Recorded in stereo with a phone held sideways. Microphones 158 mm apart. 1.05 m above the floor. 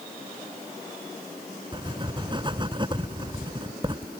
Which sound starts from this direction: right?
Writing, at 1.7 s.